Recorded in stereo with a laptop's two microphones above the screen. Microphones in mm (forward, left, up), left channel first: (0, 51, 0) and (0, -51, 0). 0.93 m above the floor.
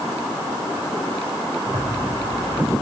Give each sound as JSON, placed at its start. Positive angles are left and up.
{"t": 1.7, "sound": "a zipper", "side_deg": -75, "distance_m": 4.5}